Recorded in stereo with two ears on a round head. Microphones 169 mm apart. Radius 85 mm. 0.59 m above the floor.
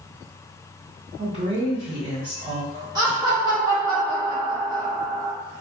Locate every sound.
1.2 s a woman speaking: 45° right (ahead or behind), 1.8 m
3.0 s laughter: 25° right (ahead or behind), 1.2 m